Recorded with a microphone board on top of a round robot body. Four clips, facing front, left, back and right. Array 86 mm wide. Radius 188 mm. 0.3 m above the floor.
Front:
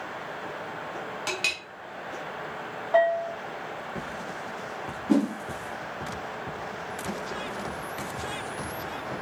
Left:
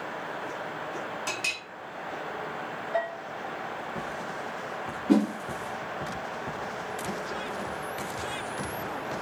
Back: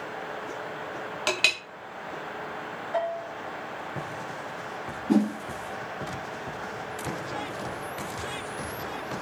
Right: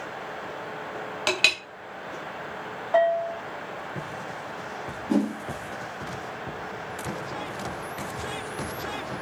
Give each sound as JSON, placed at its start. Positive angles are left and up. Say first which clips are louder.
{"t": 1.3, "sound": "a clink", "louder": "right 7 dB, back 7 dB", "azimuth_deg": -120, "distance_m": 0.7}
{"t": 2.9, "sound": "a bell", "louder": "right 11 dB, front 8 dB", "azimuth_deg": -50, "distance_m": 0.7}
{"t": 5.1, "sound": "a whoosh", "louder": "left 2 dB, even", "azimuth_deg": 75, "distance_m": 1.0}